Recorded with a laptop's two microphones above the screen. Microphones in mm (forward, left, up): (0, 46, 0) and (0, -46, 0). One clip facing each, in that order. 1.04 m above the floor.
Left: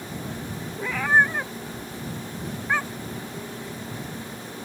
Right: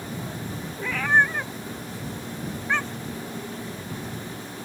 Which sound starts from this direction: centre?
A cat meowing, at 0.8 s.